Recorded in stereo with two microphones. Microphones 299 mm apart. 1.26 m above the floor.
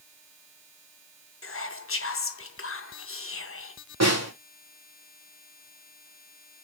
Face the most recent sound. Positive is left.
turn(degrees=-60)  # may be behind; listen again after turning